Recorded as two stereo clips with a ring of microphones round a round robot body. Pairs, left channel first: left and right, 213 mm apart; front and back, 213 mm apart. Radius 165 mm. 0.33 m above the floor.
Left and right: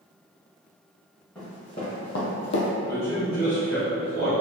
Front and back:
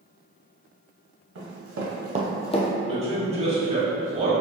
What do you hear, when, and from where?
1.4 s running footsteps: 175° left, 1.5 m; by 2.7 s 50° left, 0.8 m
2.9 s a man speaking: 125° left, 1.5 m